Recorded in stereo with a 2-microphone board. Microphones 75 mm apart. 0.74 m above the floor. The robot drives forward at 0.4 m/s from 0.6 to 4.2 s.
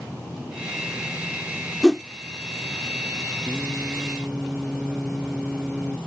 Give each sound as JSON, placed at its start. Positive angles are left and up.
{"t": 1.8, "sound": "a whoosh", "side_deg": 5}
{"t": 3.4, "sound": "singing", "side_deg": 0}